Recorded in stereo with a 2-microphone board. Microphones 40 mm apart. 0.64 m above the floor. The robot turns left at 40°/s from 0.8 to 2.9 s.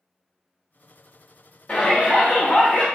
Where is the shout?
130° left, 1.1 m; by 2.9 s 80° left, 1.1 m.